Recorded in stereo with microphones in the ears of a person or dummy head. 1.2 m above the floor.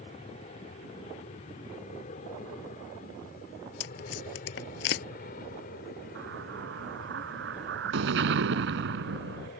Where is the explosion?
75° right (ahead or behind).